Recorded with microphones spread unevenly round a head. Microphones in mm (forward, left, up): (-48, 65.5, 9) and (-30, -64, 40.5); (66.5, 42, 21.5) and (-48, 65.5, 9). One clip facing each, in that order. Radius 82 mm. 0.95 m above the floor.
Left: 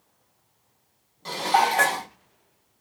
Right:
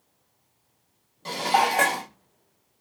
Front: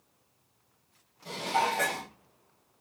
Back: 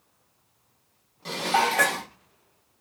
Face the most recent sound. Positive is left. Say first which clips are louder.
# left 1 dB, back 5 dB
turn(degrees=-160)